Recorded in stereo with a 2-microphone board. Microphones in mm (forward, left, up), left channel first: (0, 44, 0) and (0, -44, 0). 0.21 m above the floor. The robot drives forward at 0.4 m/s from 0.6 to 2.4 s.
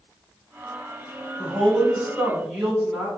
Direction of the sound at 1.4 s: 5° right (ahead or behind).